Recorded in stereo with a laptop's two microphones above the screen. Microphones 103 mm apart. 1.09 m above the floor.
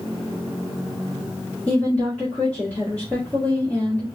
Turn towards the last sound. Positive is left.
turn(degrees=10)  # may be behind; listen again after turning